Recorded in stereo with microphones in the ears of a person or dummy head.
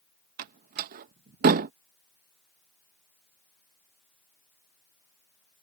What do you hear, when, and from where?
0.4 s a door slam: 50° right (ahead or behind)